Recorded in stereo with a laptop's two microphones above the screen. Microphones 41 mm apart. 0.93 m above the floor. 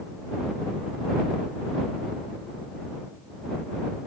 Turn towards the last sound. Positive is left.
No sound to turn to.